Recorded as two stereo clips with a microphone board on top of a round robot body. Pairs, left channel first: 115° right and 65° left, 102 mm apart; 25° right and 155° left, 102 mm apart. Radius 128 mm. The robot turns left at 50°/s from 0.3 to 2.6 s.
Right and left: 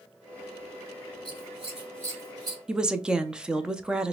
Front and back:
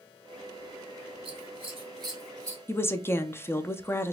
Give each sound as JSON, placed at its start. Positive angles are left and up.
{"t": 1.2, "sound": "scissors", "azimuth_deg": 165, "distance_m": 2.5}
{"t": 2.7, "sound": "a woman speaking", "azimuth_deg": -5, "distance_m": 0.7}